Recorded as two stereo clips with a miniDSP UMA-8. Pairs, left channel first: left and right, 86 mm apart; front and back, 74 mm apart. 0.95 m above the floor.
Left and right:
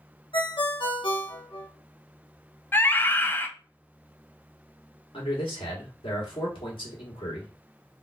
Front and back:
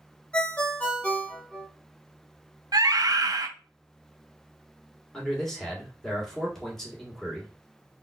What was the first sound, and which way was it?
A ringtone, 70° left.